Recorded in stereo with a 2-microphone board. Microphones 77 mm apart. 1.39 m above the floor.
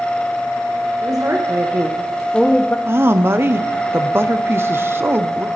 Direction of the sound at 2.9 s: 30° right (ahead or behind).